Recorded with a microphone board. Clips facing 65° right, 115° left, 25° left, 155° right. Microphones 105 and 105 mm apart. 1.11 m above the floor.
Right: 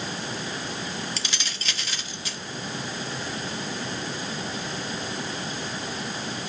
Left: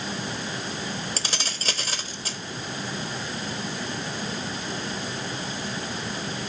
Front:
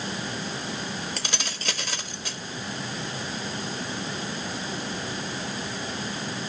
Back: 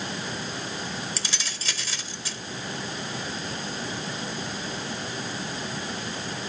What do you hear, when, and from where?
1.2 s keys jangling: 60° left, 1.2 m